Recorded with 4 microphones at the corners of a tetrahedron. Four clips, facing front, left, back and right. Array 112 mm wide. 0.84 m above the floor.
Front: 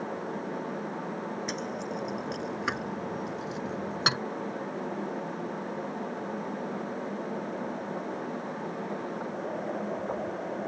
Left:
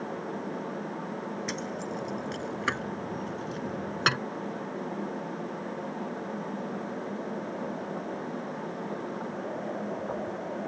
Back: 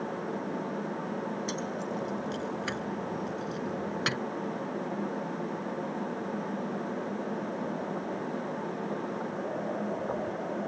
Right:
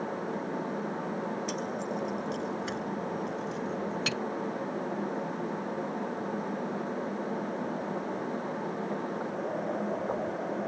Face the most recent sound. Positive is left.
turn(degrees=65)